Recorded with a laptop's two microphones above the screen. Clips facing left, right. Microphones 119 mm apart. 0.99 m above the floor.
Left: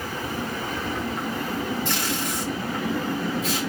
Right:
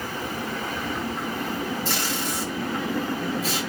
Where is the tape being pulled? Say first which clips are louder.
Left 1 dB; 35° right (ahead or behind), 3.5 m.